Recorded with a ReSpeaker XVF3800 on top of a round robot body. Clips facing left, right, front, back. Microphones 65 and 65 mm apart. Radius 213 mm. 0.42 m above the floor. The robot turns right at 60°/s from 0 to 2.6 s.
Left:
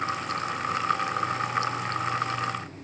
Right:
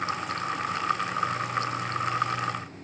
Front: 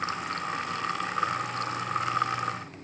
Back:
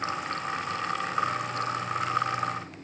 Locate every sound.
Only background noise.